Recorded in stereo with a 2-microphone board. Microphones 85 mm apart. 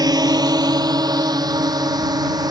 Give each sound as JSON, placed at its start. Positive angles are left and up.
{"t": 0.0, "sound": "a drone", "side_deg": -50}